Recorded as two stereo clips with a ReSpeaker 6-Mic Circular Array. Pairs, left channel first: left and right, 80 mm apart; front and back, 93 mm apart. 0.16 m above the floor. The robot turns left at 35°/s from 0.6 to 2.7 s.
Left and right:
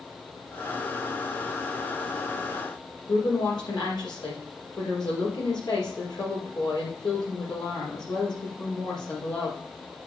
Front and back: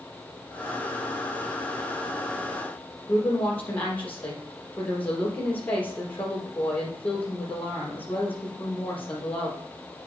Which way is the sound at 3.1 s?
70° left.